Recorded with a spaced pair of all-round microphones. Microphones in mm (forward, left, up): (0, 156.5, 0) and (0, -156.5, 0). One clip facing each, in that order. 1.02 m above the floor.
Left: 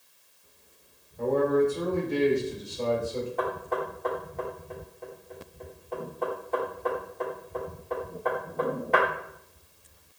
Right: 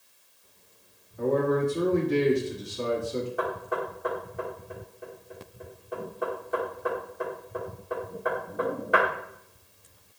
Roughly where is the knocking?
Centre.